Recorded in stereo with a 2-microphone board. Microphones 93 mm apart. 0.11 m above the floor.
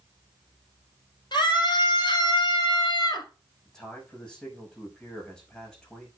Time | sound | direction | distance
1.3 | a scream | 55° left (ahead or behind) | 3.5 m
3.6 | a man speaking | 5° left (ahead or behind) | 5 m